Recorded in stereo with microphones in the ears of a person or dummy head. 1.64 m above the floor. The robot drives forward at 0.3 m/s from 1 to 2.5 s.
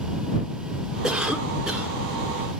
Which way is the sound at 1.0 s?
5° right (ahead or behind).